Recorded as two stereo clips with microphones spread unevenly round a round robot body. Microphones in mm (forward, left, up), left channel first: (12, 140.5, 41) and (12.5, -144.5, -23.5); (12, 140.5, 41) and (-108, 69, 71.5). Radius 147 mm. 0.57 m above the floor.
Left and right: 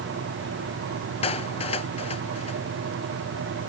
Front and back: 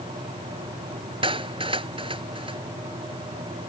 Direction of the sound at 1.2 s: 160° left.